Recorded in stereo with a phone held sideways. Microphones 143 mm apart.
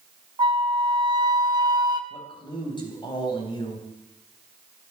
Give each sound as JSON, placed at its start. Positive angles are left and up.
{"t": 0.4, "sound": "a flute", "side_deg": -30, "distance_m": 1.3}
{"t": 2.1, "sound": "a man speaking", "side_deg": 30, "distance_m": 3.5}